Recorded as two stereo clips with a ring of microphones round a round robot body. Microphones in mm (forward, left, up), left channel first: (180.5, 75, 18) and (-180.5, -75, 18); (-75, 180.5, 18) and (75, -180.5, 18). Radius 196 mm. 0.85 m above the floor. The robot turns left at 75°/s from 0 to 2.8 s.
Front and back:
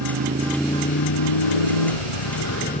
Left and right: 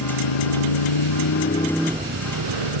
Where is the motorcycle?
155° left; by 2.8 s 55° right.